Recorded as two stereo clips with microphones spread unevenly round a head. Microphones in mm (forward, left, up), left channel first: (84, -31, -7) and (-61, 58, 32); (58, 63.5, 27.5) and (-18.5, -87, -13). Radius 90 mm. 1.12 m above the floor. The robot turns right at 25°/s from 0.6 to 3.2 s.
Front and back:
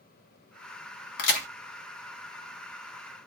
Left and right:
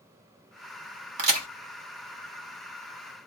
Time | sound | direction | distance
1.2 | a crack | 70° right | 1.3 m